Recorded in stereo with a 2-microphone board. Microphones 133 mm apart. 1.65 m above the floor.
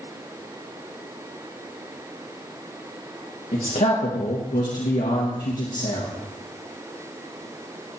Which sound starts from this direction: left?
A man speaking, at 3.5 s.